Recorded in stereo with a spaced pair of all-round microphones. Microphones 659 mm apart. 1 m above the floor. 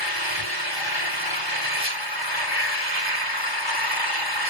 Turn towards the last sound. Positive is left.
turn(degrees=40)  # may be behind; listen again after turning